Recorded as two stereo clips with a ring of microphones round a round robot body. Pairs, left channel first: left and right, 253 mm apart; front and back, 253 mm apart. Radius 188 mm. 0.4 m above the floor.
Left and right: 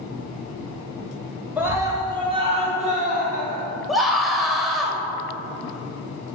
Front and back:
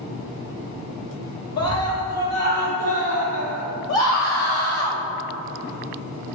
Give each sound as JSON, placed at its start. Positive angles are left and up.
{"t": 1.6, "sound": "a scream", "azimuth_deg": -10, "distance_m": 2.5}
{"t": 3.9, "sound": "a scream", "azimuth_deg": 0, "distance_m": 2.0}